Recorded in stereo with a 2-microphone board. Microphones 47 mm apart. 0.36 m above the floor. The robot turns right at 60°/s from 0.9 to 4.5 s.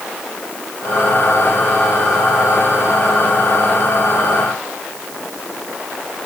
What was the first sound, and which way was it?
Only background noise.